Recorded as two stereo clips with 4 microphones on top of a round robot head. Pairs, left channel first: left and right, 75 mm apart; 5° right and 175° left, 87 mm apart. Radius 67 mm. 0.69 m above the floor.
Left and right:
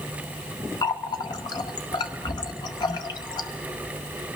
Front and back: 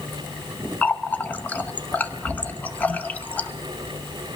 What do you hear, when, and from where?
0.8 s a running tap: 65° left, 0.9 m